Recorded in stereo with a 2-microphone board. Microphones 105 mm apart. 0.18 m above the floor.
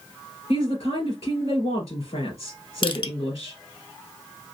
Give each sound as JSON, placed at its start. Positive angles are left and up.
{"t": 0.5, "sound": "a woman speaking", "side_deg": 70, "distance_m": 2.5}
{"t": 2.8, "sound": "crushing", "side_deg": 55, "distance_m": 0.6}